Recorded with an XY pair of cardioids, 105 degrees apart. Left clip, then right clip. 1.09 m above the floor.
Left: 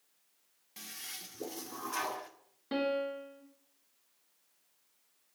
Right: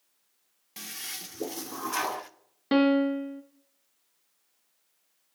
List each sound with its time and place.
0.8 s a toilet flushing: 45° right, 0.5 m
2.7 s a piano: 65° right, 0.7 m